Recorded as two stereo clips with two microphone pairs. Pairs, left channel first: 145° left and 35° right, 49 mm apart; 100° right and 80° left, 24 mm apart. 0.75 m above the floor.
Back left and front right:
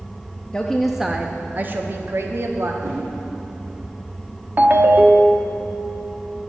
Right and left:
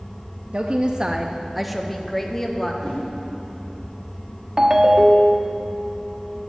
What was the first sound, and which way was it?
A woman speaking, 80° left.